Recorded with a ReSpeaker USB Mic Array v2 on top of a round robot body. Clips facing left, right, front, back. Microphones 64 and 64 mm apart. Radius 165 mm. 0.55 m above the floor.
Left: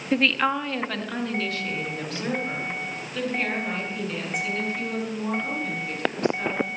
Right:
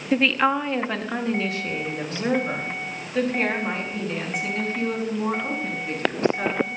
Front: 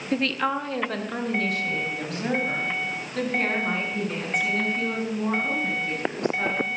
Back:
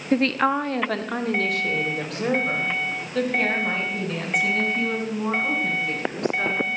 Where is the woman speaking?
Straight behind, 1.0 m; by 6.7 s 155° right, 9 m.